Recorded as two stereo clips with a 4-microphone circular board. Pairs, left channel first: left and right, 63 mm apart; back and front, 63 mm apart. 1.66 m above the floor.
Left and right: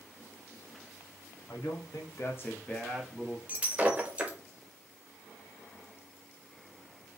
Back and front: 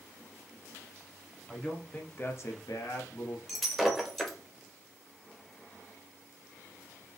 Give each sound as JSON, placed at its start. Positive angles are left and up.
{"t": 1.5, "sound": "a man speaking", "azimuth_deg": 95, "distance_m": 1.3}
{"t": 3.5, "sound": "breaking glass", "azimuth_deg": -90, "distance_m": 0.8}